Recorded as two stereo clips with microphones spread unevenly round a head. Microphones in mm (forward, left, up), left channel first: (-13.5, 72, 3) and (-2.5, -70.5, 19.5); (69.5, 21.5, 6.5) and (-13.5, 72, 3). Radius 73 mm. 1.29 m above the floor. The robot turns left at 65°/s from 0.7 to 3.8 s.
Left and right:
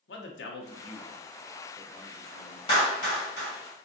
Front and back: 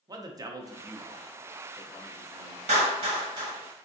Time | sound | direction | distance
0.1 | a man speaking | 95° left | 0.7 m
2.7 | a clap | 155° left | 1.3 m